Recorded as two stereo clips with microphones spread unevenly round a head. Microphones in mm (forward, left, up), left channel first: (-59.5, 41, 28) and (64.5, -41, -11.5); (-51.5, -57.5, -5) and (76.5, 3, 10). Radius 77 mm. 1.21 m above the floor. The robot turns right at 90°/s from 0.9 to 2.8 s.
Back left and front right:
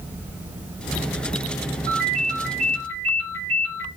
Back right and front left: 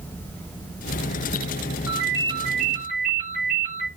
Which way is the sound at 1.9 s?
65° right.